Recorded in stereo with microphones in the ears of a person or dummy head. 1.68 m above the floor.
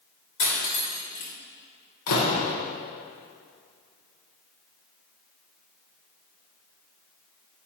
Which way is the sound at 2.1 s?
65° left (ahead or behind).